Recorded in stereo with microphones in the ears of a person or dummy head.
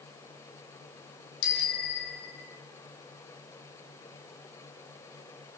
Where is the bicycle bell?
70° left (ahead or behind), 3 m; by 2.6 s 60° left (ahead or behind), 4.5 m.